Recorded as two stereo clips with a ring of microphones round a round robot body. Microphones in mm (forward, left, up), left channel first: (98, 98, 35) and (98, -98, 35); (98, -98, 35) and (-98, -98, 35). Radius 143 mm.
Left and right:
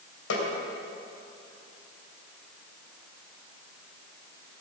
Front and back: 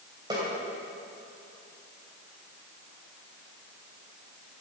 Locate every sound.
0.3 s a snare drum: 105° left, 2.5 m